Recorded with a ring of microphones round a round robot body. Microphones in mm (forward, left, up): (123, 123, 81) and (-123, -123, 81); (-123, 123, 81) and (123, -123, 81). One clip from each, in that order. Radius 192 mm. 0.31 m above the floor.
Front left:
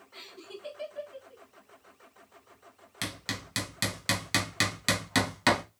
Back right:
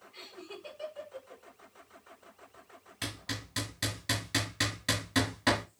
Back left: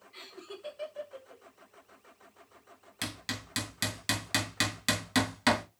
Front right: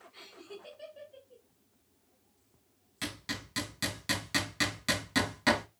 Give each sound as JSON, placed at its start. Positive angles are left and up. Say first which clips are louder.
{"t": 0.1, "sound": "laughter", "louder": "front left 1 dB, back left 3 dB", "azimuth_deg": 90, "distance_m": 4.0}
{"t": 3.0, "sound": "hammering", "louder": "front left 3 dB, back left 1 dB", "azimuth_deg": 70, "distance_m": 3.0}